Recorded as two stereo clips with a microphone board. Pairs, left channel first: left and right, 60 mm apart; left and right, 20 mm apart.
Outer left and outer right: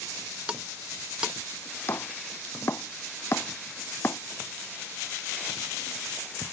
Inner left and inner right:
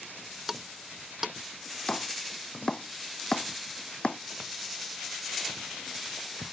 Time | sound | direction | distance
0.5 | ticking | 15° right (ahead or behind) | ?
1.9 | chopping | 45° left (ahead or behind) | ?